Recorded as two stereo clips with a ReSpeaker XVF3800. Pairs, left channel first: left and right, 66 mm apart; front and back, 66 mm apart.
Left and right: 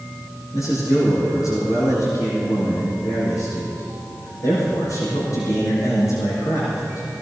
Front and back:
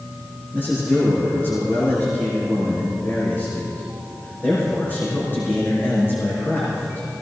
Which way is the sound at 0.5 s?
55° left.